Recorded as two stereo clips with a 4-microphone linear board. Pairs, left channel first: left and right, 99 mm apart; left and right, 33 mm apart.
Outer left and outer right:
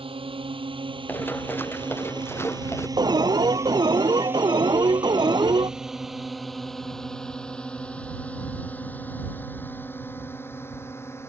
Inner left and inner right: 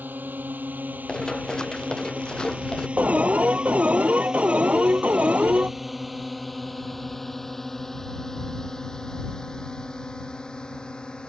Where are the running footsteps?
20° left (ahead or behind); by 2.9 s 25° left (ahead or behind).